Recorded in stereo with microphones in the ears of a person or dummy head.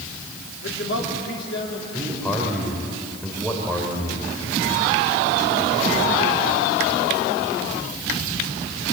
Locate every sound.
0.6 s a man speaking: 80° left, 3 m
1.9 s a man speaking: centre (ahead or behind), 3.5 m